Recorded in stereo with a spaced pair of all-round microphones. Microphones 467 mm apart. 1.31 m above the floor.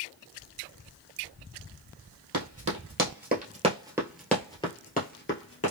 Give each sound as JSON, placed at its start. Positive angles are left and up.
{"t": 2.3, "sound": "running footsteps", "side_deg": -35, "distance_m": 1.6}